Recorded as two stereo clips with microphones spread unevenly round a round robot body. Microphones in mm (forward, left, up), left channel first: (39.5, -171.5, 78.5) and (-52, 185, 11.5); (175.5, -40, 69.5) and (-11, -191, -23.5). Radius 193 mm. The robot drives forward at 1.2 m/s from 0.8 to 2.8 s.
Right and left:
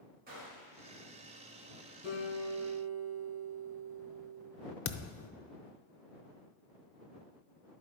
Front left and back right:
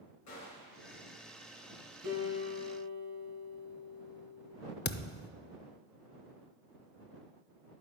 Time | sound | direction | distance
0.3 | a gunshot | 45° left | 2.5 m
2.0 | a guitar | 130° right | 4 m
4.8 | a thud | 20° right | 0.5 m